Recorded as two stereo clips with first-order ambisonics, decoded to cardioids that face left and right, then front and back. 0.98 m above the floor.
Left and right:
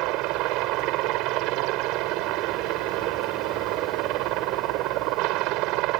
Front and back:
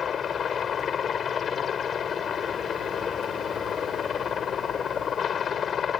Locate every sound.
0.0 s a helicopter: 65° right